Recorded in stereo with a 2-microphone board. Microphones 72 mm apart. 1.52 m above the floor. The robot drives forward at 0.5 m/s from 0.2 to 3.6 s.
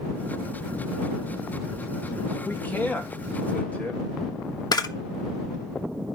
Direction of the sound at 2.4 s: 25° left (ahead or behind).